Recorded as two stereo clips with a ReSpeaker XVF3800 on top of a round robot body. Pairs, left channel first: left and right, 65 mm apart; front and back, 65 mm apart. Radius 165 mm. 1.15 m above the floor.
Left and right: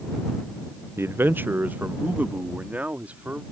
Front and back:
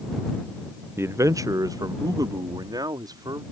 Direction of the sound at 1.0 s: 135° right.